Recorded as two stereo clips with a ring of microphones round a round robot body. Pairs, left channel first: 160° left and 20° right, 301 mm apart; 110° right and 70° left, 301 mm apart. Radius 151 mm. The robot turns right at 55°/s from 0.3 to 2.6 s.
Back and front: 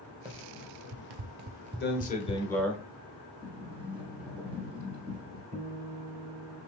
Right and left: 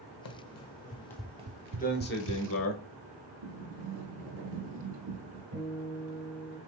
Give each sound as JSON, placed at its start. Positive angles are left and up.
{"t": 0.2, "sound": "running footsteps", "azimuth_deg": -95, "distance_m": 0.9}
{"t": 1.8, "sound": "a man speaking", "azimuth_deg": -165, "distance_m": 1.1}
{"t": 3.4, "sound": "a sliding door", "azimuth_deg": 65, "distance_m": 1.3}
{"t": 5.5, "sound": "a guitar", "azimuth_deg": 45, "distance_m": 1.5}